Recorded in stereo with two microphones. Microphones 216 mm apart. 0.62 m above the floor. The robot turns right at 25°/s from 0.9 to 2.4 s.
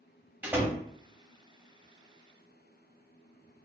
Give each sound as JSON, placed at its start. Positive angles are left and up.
{"t": 0.4, "sound": "a door slam", "side_deg": -5, "distance_m": 0.8}